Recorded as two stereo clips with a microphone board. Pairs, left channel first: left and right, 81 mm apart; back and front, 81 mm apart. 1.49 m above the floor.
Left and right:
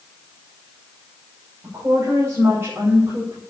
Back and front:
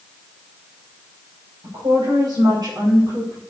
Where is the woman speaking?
35° right, 6.5 m; by 3.4 s 50° right, 4.5 m.